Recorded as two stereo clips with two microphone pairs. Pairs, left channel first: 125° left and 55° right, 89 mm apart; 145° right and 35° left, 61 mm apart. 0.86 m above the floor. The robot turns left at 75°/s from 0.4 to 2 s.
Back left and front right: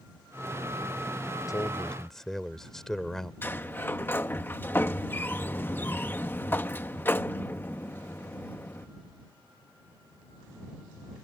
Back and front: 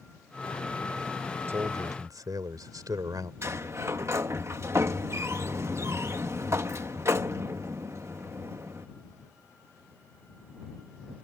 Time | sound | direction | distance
1.5 | a man speaking | 80° left | ?
3.4 | a sliding door | 65° left | ?